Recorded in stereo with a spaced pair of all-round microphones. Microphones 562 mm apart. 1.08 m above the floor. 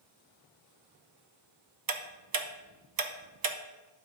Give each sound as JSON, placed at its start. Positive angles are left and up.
{"t": 1.9, "sound": "ticking", "side_deg": -40, "distance_m": 0.6}